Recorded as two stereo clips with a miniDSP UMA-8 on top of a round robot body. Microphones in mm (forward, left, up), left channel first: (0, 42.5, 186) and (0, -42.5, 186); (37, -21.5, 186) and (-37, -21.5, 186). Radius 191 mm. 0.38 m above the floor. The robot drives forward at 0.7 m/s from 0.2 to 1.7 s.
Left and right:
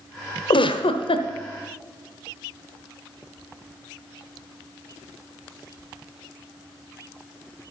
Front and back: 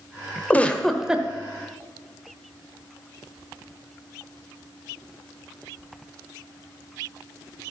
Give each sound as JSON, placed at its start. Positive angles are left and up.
{"t": 0.5, "sound": "a giggle", "azimuth_deg": 70, "distance_m": 0.9}